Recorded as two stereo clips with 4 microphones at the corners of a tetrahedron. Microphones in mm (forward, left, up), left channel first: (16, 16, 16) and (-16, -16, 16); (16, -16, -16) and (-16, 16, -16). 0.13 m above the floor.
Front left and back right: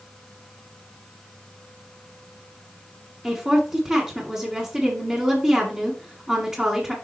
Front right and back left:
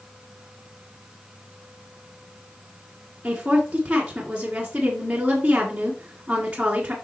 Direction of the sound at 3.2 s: 175° left.